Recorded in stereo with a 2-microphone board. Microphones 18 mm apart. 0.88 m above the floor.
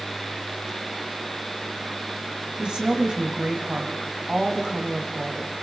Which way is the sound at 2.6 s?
75° right (ahead or behind).